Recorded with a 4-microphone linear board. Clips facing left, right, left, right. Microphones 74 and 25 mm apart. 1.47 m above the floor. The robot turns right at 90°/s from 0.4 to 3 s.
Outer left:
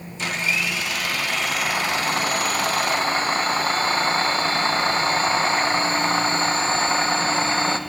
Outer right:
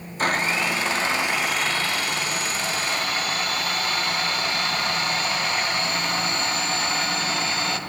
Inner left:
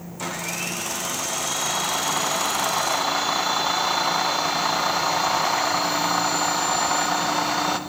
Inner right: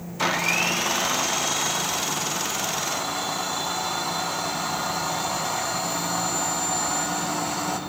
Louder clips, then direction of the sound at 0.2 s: Outer right 3 dB, inner right 7 dB; 100° right.